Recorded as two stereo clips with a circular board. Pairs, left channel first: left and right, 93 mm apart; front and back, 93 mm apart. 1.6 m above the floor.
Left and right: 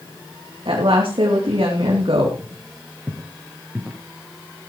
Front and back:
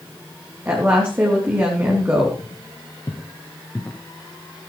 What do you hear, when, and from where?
0.7 s a woman speaking: 115° right, 3 m
2.4 s footsteps: 15° right, 2.5 m; by 4.0 s 40° right, 1.7 m